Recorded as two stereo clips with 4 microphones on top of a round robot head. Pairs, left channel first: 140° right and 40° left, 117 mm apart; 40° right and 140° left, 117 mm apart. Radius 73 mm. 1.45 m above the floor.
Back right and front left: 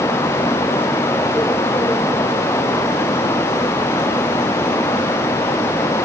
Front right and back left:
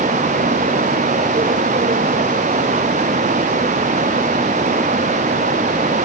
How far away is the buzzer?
No buzzer in this recording.